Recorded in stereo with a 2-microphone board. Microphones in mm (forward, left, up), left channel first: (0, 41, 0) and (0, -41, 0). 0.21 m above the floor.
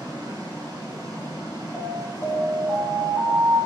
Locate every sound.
0.0 s running water: 50° right (ahead or behind), 1.2 m
1.7 s an alarm: 15° right (ahead or behind), 1.3 m